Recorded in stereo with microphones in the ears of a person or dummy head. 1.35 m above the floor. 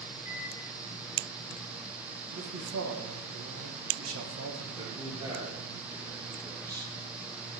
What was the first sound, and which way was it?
A microwave, 40° left (ahead or behind).